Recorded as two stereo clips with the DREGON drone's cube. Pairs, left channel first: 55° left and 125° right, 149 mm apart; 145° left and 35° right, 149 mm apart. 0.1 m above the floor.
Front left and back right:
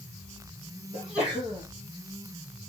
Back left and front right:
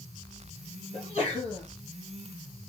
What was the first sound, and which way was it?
A sneeze, 145° left.